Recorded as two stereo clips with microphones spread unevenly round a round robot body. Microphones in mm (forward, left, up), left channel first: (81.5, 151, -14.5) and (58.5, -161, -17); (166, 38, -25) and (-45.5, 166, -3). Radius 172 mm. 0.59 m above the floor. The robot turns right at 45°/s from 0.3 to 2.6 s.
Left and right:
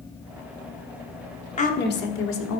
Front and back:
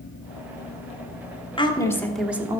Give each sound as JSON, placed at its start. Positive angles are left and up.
{"t": 1.6, "sound": "a woman speaking", "azimuth_deg": 25, "distance_m": 1.5}